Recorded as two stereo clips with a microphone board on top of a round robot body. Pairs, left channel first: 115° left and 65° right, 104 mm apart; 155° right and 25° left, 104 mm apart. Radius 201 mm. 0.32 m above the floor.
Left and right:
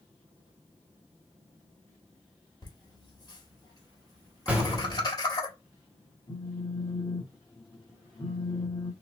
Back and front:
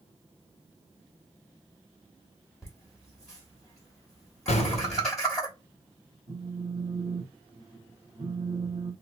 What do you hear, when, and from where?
2.6 s laughter: 120° left, 1.8 m
4.5 s an explosion: 145° right, 0.6 m
6.3 s a phone buzzing: 60° left, 0.7 m